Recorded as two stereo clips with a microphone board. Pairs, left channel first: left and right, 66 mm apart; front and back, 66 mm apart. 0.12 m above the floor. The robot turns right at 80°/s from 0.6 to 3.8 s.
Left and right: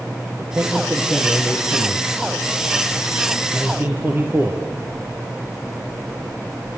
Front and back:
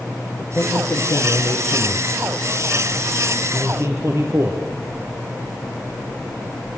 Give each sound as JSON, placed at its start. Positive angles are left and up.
{"t": 0.4, "sound": "a man speaking", "azimuth_deg": -40, "distance_m": 3.0}